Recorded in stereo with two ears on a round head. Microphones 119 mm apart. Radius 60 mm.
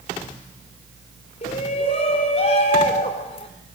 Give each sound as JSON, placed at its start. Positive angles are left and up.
{"t": 1.4, "sound": "a shout", "side_deg": 45, "distance_m": 4.0}